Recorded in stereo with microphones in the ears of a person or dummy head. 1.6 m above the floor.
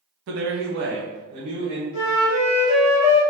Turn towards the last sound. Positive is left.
turn(degrees=80)